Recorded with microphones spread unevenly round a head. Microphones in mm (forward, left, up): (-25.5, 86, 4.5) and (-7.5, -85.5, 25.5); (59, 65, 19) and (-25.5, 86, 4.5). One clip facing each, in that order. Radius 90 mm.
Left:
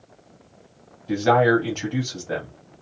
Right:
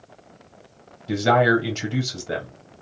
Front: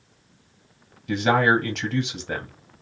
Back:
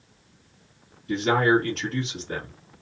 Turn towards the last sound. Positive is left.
turn(degrees=-20)